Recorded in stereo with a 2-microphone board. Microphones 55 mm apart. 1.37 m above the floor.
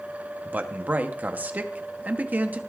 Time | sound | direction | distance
0.5 | a man speaking | 30° right (ahead or behind) | 0.9 m